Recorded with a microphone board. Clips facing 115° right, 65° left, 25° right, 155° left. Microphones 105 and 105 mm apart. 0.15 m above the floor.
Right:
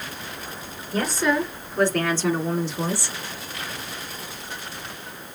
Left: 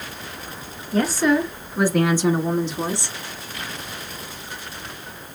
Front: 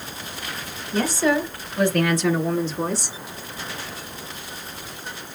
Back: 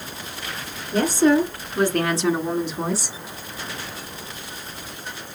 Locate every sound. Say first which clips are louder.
0.9 s a woman speaking: left 4 dB, back 4 dB; 155° left, 2.5 m; by 3.2 s 65° left, 1.6 m